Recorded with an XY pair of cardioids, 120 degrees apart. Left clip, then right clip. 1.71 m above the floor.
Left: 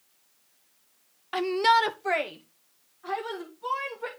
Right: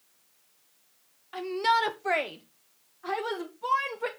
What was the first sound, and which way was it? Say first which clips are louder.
A shout: left 4 dB; 60° left.